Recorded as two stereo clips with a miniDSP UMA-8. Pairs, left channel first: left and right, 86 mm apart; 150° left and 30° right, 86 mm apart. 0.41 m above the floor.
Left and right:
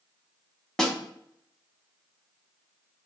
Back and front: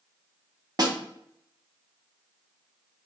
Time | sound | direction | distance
0.8 | a snare drum | 5° left | 0.8 m